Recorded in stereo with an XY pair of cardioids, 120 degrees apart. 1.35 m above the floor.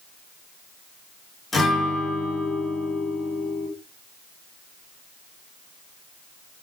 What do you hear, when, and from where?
1.5 s a guitar: 25° left, 3.5 m